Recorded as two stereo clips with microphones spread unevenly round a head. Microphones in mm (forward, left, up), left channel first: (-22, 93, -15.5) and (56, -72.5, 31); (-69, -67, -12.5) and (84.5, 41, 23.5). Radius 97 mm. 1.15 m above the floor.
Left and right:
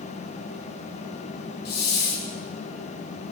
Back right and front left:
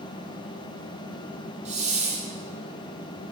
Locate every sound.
1.6 s a hiss: 95° left, 1.8 m